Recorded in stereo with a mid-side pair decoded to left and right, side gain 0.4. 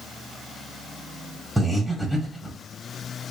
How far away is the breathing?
About 2 m.